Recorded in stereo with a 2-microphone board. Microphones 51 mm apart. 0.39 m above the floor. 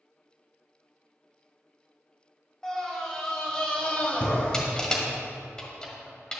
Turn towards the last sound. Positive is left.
turn(degrees=15)  # may be behind; listen again after turning